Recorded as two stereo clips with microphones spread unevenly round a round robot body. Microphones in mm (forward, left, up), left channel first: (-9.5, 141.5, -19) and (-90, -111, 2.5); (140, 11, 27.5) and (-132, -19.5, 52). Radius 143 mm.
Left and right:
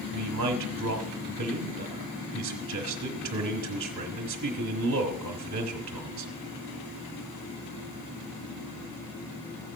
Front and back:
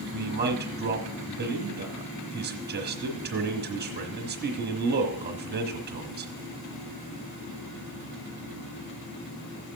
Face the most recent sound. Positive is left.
turn(degrees=-125)